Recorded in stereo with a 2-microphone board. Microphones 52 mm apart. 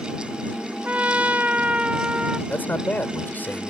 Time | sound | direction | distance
0.8 | a trumpet | 25° right (ahead or behind) | ?
2.5 | a man speaking | 40° left (ahead or behind) | ?